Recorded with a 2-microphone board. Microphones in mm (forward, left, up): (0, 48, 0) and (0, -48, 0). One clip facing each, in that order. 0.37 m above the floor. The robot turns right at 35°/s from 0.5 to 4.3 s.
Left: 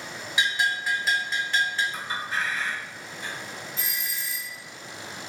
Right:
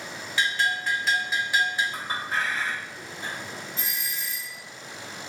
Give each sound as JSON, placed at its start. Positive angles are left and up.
{"t": 0.4, "sound": "a bell", "azimuth_deg": 155, "distance_m": 0.7}
{"t": 1.9, "sound": "a clink", "side_deg": -50, "distance_m": 1.2}
{"t": 3.8, "sound": "a doorbell", "side_deg": 0, "distance_m": 1.8}